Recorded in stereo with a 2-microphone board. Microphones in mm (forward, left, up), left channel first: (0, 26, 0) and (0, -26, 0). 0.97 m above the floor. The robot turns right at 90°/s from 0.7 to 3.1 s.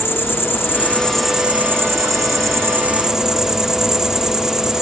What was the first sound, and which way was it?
An insect, 130° left.